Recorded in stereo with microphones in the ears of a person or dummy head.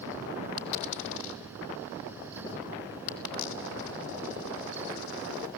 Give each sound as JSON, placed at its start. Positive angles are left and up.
{"t": 0.6, "sound": "a dropped coin", "side_deg": 70, "distance_m": 2.0}